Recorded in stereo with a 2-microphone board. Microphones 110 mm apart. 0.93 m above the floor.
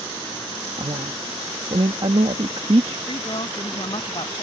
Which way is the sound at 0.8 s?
65° right (ahead or behind).